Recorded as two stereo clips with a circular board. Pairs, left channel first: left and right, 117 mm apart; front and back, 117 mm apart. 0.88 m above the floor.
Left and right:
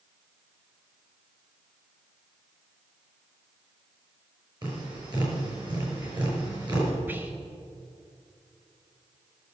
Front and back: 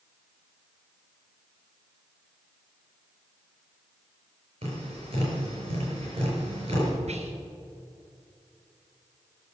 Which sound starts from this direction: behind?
Whispering, at 7.1 s.